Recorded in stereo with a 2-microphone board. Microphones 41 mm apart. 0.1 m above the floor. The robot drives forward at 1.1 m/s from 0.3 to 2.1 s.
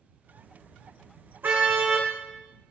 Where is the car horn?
60° right (ahead or behind), 3.5 m; by 2.1 s 70° right (ahead or behind), 3.5 m.